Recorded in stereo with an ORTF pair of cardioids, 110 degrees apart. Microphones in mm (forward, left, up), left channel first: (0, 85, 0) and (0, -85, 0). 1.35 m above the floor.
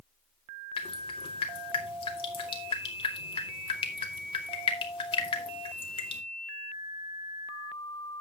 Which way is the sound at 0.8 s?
30° left.